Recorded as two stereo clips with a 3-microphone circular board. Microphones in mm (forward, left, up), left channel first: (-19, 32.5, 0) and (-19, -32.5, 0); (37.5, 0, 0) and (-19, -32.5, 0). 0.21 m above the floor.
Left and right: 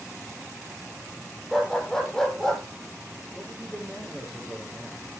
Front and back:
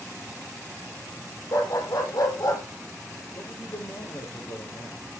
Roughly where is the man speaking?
Ahead.